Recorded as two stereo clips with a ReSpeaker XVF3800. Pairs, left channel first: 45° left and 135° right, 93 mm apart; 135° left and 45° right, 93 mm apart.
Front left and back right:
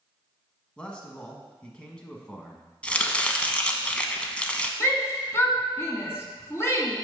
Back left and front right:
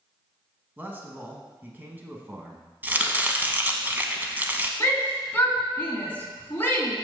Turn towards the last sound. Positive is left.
turn(degrees=80)